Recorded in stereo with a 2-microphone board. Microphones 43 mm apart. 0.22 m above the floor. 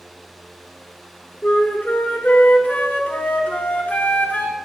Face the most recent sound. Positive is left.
turn(degrees=35)  # may be behind; listen again after turning